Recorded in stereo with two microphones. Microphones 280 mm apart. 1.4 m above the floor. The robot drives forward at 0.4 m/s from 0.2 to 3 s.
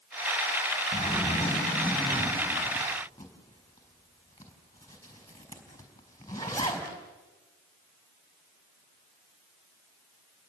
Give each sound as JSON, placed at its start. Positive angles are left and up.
{"t": 0.9, "sound": "a zipper", "side_deg": 15, "distance_m": 4.0}